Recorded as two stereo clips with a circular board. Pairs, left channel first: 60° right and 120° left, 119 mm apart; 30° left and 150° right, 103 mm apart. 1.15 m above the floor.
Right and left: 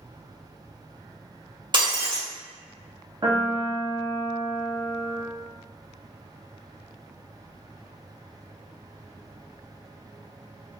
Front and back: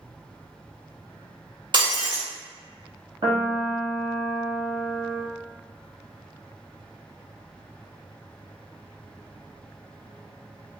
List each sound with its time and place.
1.7 s breaking glass: 170° left, 1.6 m
3.2 s a piano: 175° left, 1.3 m